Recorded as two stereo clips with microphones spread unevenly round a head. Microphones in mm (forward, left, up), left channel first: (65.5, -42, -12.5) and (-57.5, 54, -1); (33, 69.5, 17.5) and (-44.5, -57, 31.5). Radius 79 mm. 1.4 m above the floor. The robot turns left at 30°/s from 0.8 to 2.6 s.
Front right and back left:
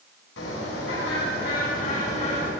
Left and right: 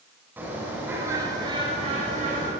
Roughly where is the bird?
Ahead right.